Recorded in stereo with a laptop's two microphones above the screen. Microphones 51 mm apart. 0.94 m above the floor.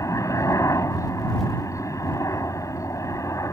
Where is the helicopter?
75° left (ahead or behind).